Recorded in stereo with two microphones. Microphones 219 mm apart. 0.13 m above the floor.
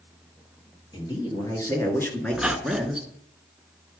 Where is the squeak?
5° right (ahead or behind), 0.7 m.